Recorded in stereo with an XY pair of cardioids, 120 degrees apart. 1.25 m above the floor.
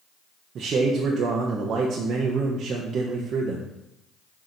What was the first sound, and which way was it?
A man speaking, 50° right.